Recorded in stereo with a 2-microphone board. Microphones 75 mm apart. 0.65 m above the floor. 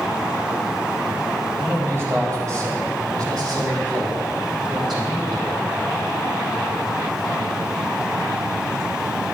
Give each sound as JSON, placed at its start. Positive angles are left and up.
{"t": 1.6, "sound": "a man speaking", "side_deg": -35, "distance_m": 3.5}